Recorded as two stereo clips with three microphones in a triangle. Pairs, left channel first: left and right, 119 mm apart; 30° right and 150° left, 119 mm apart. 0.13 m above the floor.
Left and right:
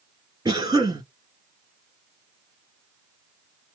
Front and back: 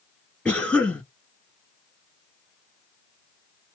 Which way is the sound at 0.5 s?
100° right.